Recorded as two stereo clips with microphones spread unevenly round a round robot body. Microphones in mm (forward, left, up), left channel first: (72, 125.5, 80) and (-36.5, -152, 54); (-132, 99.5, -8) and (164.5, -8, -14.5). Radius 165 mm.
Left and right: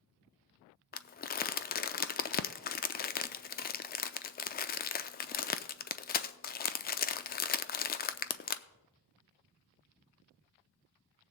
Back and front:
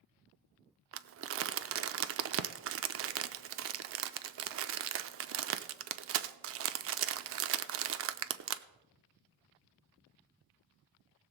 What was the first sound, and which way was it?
Crumpling, 10° left.